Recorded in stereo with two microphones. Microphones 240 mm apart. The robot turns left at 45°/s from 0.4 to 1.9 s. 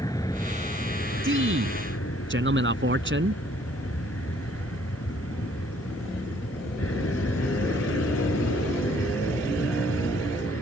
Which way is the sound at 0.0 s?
165° left.